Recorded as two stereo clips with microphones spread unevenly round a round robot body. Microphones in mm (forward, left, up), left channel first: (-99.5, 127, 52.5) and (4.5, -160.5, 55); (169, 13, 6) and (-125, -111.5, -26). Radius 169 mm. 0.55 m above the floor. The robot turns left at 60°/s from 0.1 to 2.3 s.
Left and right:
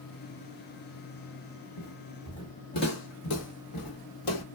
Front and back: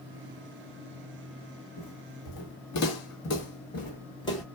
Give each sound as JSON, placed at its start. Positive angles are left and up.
{"t": 1.8, "sound": "footsteps", "azimuth_deg": 55, "distance_m": 1.2}